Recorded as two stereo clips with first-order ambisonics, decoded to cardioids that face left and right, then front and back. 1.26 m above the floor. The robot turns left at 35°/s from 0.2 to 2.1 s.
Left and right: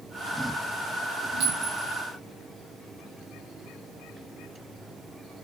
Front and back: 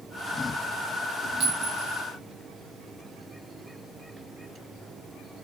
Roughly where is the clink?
Behind right.